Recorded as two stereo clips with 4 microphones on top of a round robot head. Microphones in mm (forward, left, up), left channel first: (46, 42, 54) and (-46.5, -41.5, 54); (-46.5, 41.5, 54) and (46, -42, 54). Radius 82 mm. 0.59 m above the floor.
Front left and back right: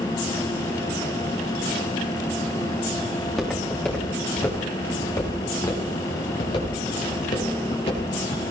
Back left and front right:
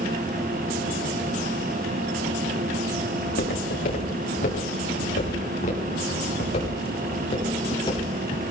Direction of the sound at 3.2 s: 130° left.